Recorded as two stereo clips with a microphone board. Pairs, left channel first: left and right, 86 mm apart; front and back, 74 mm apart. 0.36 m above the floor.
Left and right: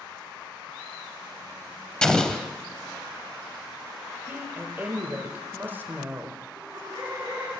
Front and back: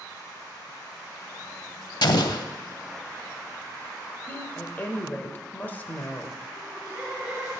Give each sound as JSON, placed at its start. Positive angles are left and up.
{"t": 2.0, "sound": "an explosion", "azimuth_deg": 10, "distance_m": 0.6}
{"t": 4.3, "sound": "a woman speaking", "azimuth_deg": -45, "distance_m": 1.2}
{"t": 6.6, "sound": "laughter", "azimuth_deg": -110, "distance_m": 3.0}